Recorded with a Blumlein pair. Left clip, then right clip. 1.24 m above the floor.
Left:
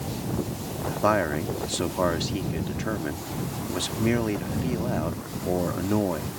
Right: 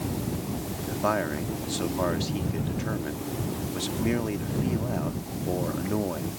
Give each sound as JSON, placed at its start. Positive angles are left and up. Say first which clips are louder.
{"t": 0.9, "sound": "a man speaking", "louder": "left 4 dB", "azimuth_deg": 15}